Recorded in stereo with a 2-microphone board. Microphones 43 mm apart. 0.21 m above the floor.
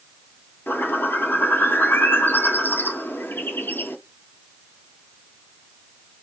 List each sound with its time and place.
0.7 s a bird: 60° left (ahead or behind), 0.7 m